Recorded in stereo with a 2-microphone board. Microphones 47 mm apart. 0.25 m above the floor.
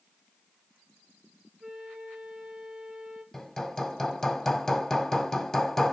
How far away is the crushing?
I don't hear crushing.